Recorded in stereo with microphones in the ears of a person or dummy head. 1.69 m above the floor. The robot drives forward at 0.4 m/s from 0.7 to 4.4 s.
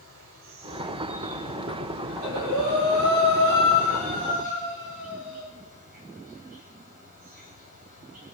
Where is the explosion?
No explosion in this recording.